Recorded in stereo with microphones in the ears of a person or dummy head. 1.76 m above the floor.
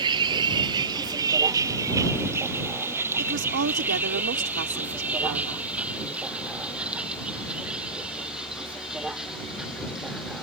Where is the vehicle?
25° right (ahead or behind); by 10.4 s centre (ahead or behind).